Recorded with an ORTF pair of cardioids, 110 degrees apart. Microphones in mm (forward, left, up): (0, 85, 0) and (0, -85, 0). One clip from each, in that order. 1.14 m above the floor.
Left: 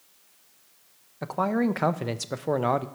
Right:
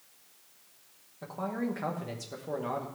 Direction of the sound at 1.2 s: 55° left.